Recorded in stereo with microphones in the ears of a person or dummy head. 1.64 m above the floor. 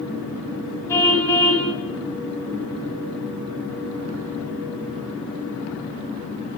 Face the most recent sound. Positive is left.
turn(degrees=20)  # may be behind; listen again after turning